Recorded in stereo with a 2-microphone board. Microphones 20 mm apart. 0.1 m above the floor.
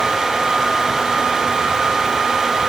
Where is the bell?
No bell in this recording.